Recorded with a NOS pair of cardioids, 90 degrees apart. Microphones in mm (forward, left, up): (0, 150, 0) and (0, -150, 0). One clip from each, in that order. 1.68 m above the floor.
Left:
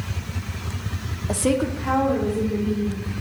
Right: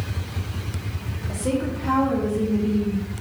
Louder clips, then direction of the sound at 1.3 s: Left 4 dB; 65° left.